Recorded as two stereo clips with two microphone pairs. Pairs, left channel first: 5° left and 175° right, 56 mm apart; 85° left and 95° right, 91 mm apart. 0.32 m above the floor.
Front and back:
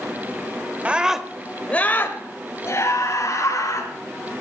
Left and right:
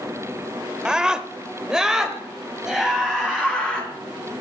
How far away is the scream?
About 1.1 m.